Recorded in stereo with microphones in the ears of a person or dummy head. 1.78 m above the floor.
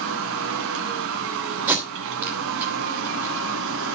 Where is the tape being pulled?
10° right (ahead or behind), 2.5 m.